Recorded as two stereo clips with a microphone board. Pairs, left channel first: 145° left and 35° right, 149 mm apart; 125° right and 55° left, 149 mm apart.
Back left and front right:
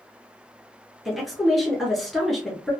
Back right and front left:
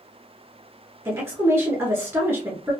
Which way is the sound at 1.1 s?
55° left.